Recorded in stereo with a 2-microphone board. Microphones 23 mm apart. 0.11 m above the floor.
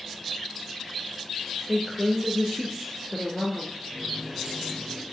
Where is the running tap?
45° right (ahead or behind), 4 m.